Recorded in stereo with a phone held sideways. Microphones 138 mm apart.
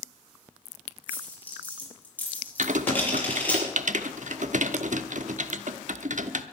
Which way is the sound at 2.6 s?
70° right (ahead or behind).